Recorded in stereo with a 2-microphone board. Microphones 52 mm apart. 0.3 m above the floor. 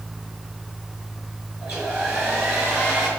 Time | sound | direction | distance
1.6 | a hair dryer | 50° right (ahead or behind) | 5 m